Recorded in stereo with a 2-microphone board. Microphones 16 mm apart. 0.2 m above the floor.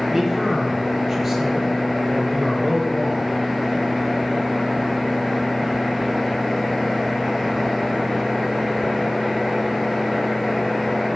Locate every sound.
0.1 s a man speaking: 10° right (ahead or behind), 3 m